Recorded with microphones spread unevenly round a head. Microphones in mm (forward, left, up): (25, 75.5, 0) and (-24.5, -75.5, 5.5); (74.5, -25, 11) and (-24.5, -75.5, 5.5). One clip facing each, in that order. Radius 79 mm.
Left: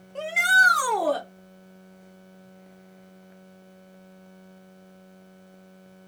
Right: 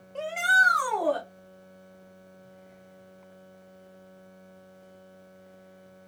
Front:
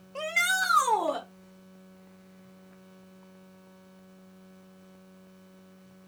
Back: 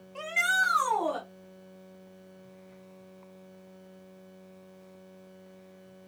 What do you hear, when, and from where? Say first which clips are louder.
0.1 s a shout: left 2 dB, even; 25° right, 0.7 m; by 1.2 s 110° left, 1.2 m